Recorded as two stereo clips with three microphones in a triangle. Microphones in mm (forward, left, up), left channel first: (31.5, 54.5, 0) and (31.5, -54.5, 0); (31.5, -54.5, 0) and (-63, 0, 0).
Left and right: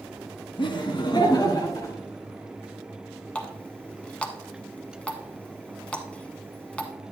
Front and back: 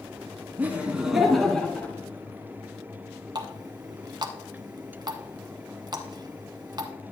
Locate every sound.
0.6 s laughter: 80° left, 1.5 m; by 1.9 s 40° left, 1.5 m
3.4 s a running tap: 165° left, 1.0 m